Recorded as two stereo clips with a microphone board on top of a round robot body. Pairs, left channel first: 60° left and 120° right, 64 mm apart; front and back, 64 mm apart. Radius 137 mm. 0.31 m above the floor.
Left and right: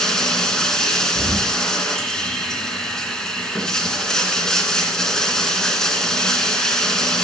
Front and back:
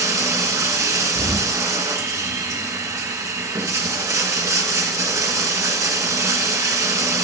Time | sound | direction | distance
0.0 | running water | 140° left | 2 m
1.1 | an explosion | 175° right | 9 m